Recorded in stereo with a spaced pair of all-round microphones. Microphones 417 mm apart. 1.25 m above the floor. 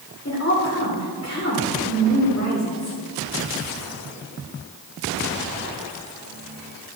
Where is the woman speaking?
35° left (ahead or behind), 3.5 m.